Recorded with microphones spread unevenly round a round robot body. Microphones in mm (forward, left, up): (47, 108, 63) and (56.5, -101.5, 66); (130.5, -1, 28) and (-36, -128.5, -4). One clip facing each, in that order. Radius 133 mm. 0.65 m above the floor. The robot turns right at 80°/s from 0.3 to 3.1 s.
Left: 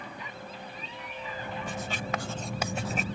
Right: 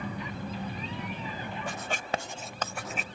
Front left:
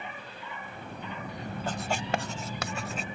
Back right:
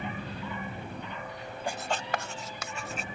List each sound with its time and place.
0.0 s an engine running: 105° right; by 3.1 s 120° left
1.7 s writing: 65° right; by 3.0 s 45° left